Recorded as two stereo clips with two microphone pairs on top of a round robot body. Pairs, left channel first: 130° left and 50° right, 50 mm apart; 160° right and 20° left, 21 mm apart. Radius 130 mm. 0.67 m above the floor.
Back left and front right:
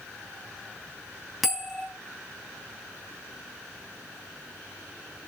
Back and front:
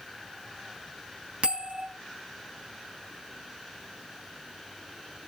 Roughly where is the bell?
Ahead left.